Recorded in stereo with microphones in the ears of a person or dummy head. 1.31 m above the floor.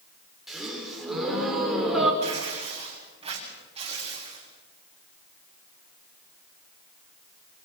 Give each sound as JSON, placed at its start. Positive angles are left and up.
{"t": 0.5, "sound": "a gasp", "side_deg": -5, "distance_m": 4.5}
{"t": 2.2, "sound": "tearing paper", "side_deg": -40, "distance_m": 6.5}